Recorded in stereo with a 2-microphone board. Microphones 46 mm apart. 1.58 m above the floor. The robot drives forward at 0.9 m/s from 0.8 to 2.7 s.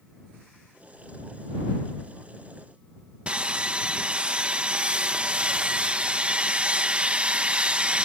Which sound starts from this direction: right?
Sawing, at 3.3 s.